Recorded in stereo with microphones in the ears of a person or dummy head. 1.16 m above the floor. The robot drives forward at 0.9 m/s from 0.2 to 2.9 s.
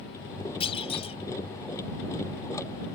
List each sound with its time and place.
0.6 s a clunk: 30° left (ahead or behind); by 1.2 s 35° left (ahead or behind)